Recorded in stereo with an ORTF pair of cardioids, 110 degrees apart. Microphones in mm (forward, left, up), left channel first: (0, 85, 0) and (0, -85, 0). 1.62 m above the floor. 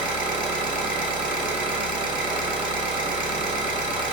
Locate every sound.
0.0 s an engine running: 30° right, 1.0 m